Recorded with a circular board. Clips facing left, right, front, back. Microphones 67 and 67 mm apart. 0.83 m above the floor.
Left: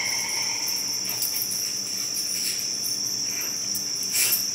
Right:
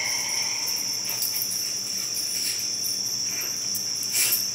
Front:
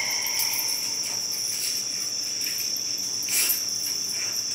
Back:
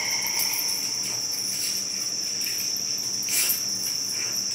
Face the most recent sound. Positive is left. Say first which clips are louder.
# left 1 dB, even
turn(degrees=125)